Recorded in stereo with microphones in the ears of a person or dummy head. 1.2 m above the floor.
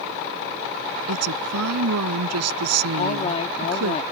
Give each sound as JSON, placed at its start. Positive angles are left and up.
{"t": 1.1, "sound": "a woman speaking", "side_deg": -85}
{"t": 3.0, "sound": "a woman speaking", "side_deg": 35}